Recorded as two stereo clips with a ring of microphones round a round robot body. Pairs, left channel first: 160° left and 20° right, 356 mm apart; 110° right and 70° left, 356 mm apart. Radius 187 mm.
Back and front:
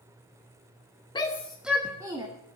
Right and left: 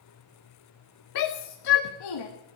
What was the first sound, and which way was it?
A shout, 125° right.